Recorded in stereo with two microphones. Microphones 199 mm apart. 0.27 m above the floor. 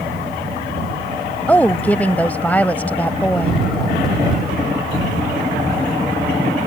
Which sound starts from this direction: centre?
A woman speaking, at 1.5 s.